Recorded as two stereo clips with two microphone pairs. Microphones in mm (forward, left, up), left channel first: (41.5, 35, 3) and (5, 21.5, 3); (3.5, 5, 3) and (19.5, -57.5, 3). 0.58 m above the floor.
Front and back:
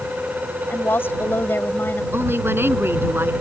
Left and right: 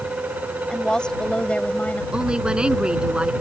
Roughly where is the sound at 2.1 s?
Behind right.